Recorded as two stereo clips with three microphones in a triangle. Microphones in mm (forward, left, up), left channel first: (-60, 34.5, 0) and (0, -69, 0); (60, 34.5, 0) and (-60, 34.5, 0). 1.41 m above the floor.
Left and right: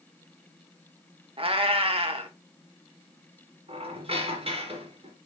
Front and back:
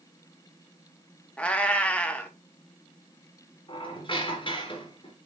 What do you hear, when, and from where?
1.4 s a cat meowing: 75° right, 1.1 m
3.7 s a squeak: 35° right, 2.5 m